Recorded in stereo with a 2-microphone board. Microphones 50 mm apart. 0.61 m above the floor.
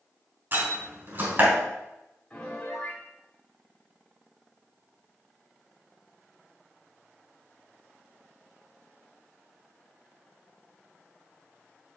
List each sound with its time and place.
0.5 s a door slam: 35° right (ahead or behind), 3.5 m
2.3 s a piano: 25° left (ahead or behind), 2 m